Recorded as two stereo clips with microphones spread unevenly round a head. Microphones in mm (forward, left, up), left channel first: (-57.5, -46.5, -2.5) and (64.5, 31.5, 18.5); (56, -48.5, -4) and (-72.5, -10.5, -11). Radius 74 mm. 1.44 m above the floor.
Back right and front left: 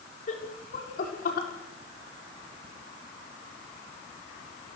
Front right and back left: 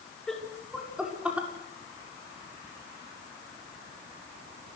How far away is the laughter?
About 5 m.